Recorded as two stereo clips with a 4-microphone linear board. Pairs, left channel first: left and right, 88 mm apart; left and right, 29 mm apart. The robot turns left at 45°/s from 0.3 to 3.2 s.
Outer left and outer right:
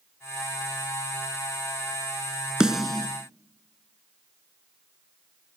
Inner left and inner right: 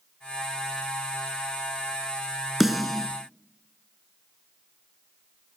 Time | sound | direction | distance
2.6 | a snare drum | 10° right (ahead or behind) | 1.2 m